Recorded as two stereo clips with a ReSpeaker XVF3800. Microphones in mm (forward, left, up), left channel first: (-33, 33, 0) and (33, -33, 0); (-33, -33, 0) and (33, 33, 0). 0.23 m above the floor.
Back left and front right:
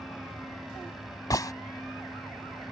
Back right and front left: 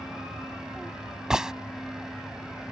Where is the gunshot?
125° left.